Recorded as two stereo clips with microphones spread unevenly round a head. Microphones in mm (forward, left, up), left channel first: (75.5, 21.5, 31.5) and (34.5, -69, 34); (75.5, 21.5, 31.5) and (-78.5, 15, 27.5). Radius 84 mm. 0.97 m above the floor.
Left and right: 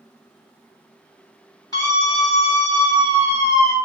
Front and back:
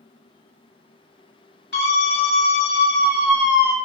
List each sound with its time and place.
1.7 s a scream: 15° left, 3.5 m; by 3.8 s 40° left, 1.4 m